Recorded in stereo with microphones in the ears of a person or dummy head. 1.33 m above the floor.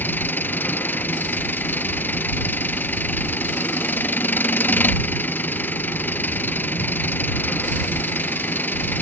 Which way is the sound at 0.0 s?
10° left (ahead or behind).